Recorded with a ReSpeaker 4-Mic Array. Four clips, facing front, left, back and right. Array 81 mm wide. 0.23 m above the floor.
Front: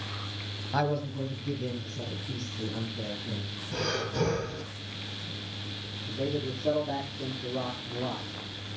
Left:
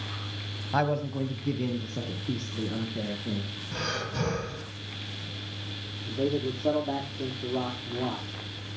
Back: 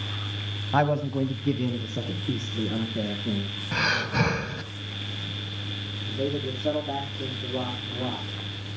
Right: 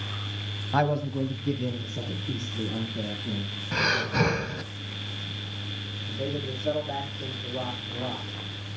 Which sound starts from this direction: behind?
A man speaking, at 0.7 s.